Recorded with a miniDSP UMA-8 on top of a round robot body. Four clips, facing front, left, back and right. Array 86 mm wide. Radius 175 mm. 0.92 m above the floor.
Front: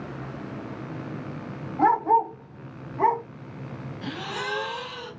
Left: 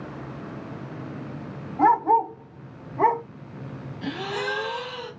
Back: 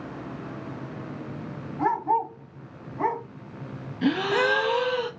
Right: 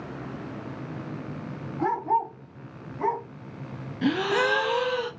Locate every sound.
1.8 s a dog barking: 45° left, 1.5 m; by 3.2 s 80° left, 1.2 m
4.0 s a gasp: 135° right, 0.6 m